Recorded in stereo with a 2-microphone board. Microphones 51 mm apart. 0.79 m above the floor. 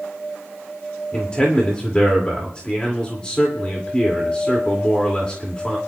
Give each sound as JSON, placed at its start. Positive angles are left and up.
{"t": 1.1, "sound": "a man speaking", "side_deg": 20, "distance_m": 2.0}